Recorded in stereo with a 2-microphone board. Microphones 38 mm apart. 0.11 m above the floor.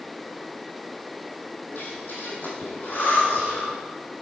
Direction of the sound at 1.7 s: 60° left (ahead or behind).